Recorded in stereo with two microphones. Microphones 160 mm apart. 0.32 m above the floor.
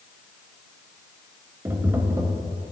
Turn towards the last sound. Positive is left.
turn(degrees=-15)  # may be behind; listen again after turning